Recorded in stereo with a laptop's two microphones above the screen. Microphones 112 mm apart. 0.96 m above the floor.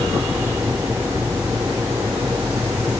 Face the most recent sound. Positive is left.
turn(degrees=-20)  # may be behind; listen again after turning